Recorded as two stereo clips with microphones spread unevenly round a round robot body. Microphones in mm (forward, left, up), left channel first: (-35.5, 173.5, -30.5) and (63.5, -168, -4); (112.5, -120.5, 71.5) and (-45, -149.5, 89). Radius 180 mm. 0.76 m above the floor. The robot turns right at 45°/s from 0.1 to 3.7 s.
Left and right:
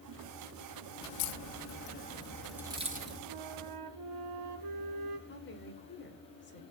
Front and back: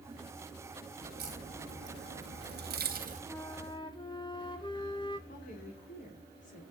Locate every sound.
1.0 s a crack: 130° left, 2 m; by 3.2 s 130° right, 2 m
3.3 s a flute: 65° right, 1.6 m; by 5.2 s 45° right, 1.6 m
5.3 s a woman speaking: 50° left, 3 m